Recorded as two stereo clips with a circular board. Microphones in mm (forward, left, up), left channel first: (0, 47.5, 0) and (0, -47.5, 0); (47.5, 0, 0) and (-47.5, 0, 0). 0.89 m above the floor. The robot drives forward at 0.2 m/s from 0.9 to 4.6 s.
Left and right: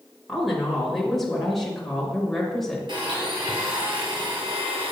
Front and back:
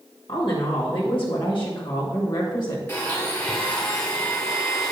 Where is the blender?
70° right, 1.9 m; by 4.9 s 80° right, 1.8 m.